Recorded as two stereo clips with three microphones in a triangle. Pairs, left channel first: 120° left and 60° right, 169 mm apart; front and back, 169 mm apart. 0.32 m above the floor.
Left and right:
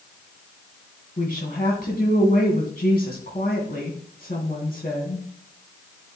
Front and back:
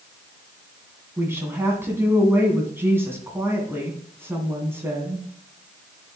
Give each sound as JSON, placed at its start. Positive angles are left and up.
{"t": 1.2, "sound": "a woman speaking", "azimuth_deg": 105, "distance_m": 2.5}